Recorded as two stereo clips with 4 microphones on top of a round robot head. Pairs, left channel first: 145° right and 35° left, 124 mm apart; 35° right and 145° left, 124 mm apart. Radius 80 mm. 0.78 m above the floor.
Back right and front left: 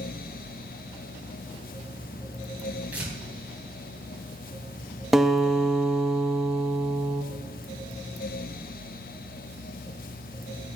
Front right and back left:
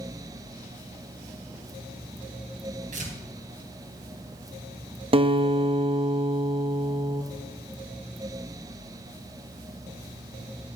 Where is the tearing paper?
115° left, 3.5 m.